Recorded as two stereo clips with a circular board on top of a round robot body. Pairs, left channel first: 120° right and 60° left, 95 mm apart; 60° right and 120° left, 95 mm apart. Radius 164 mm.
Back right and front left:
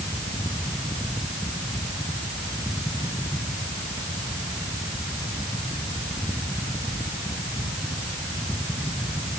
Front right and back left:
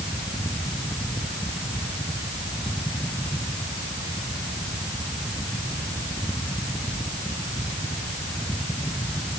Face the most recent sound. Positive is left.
No sound to turn to.